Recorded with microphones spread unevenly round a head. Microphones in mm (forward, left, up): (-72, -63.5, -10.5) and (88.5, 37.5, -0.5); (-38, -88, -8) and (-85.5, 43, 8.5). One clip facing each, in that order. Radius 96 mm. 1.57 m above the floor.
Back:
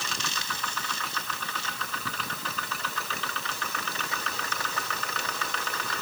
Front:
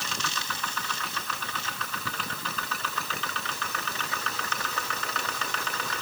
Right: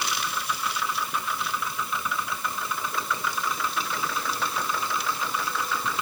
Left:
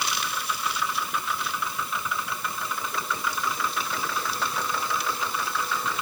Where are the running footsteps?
No running footsteps in this recording.